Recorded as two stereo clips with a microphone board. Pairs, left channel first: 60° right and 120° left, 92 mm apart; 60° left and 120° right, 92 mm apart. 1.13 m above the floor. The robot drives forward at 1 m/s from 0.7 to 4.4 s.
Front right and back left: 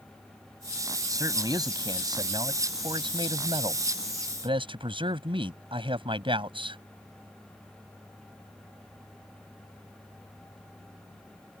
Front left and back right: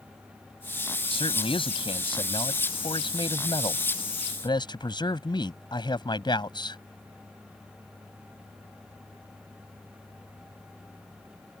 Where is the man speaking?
70° left; by 6.8 s 95° left.